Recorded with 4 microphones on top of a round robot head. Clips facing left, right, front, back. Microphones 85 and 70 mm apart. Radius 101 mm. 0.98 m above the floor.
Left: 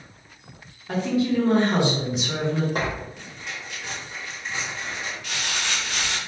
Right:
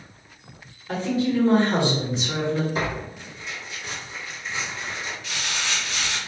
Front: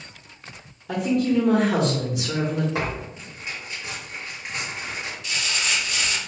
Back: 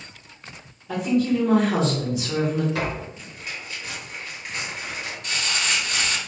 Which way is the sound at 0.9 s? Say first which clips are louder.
Left 1 dB, even; 20° left.